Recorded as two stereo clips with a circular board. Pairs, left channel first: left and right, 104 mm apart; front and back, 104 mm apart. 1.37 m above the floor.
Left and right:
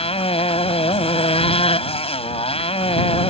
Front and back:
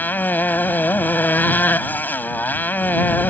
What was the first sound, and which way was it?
A motorcycle, 75° left.